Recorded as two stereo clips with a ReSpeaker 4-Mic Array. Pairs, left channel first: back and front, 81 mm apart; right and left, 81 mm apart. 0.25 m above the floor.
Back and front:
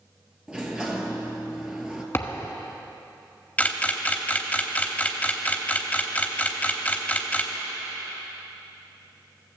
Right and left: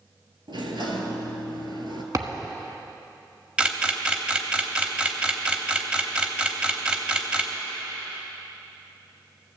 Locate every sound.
0.5 s a sliding door: 80° left, 1.3 m
2.1 s a thud: 125° left, 1.1 m
3.6 s a camera shutter: 145° left, 0.9 m